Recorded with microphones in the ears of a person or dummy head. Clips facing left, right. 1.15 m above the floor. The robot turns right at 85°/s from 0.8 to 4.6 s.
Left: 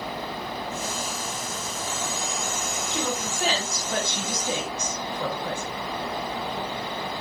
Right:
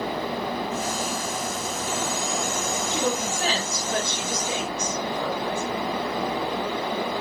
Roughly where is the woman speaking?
Ahead right.